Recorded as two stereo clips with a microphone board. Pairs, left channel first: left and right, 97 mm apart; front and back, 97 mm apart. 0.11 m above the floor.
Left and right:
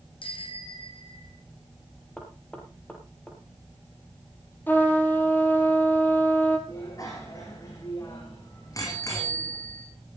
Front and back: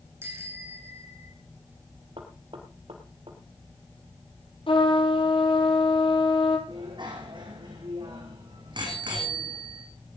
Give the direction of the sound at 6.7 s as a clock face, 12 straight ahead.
7 o'clock.